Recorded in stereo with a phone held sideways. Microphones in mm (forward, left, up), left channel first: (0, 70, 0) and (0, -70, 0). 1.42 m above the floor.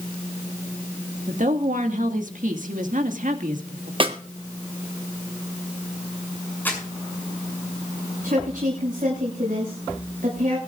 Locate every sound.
1.3 s a woman speaking: 65° right (ahead or behind), 2.0 m
4.0 s a snare drum: 40° right (ahead or behind), 1.5 m
6.7 s crumpling: 15° left (ahead or behind), 6.5 m
8.2 s a woman speaking: 75° right (ahead or behind), 6 m